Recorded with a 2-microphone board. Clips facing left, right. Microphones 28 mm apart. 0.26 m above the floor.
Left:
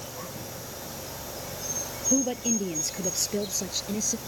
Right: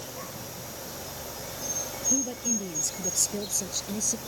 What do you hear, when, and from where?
2.1 s a woman speaking: 35° left (ahead or behind); by 4.2 s 20° left (ahead or behind)